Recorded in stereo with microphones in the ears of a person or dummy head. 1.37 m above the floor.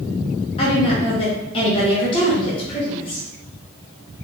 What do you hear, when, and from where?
0.6 s a woman speaking: 30° left (ahead or behind), 1.0 m